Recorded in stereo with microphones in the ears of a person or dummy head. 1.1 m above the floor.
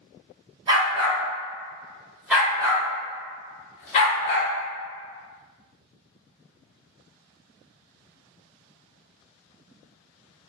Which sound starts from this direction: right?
A dog barking, at 0.7 s.